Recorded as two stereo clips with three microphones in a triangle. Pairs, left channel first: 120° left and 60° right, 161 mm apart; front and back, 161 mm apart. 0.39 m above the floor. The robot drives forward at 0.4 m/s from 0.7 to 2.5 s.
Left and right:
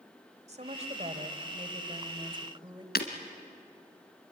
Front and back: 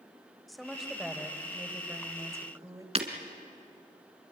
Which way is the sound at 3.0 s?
130° left.